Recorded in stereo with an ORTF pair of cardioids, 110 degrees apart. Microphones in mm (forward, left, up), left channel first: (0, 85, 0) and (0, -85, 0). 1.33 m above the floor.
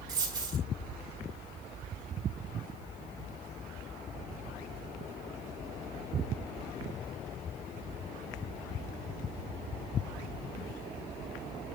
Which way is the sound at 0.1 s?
25° right.